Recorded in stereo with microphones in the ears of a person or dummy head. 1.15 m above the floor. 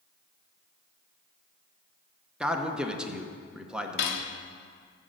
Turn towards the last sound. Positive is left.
turn(degrees=65)  # may be behind; listen again after turning